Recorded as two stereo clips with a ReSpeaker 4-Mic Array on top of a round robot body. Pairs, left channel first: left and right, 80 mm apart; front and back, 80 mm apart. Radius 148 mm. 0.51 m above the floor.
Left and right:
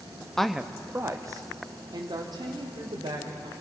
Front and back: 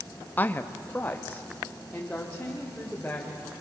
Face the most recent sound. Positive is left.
turn(degrees=-75)